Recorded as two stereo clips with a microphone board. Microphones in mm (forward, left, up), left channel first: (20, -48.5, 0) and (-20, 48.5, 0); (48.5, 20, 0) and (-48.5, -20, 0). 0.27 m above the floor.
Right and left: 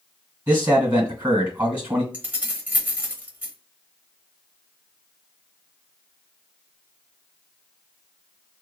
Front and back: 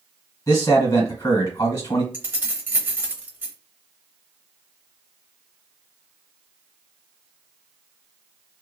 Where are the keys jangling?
165° left, 0.7 m.